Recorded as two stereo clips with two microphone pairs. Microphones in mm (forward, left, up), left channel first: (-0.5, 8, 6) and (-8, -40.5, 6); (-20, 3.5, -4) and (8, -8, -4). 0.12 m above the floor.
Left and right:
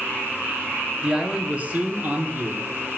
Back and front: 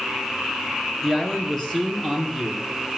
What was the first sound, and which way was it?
A man speaking, 150° right.